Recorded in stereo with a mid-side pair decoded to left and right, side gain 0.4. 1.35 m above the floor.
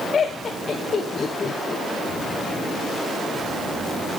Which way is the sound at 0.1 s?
45° left.